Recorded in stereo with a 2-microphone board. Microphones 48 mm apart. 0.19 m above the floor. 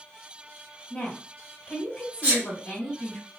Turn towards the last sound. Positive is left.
turn(degrees=-25)  # may be behind; listen again after turning